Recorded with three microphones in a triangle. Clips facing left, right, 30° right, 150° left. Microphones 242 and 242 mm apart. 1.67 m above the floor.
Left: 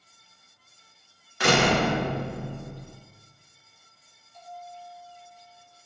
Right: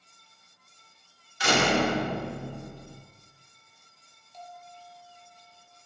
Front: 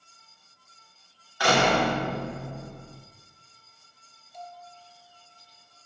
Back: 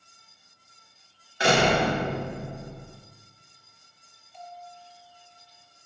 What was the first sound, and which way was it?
A door slam, 90° left.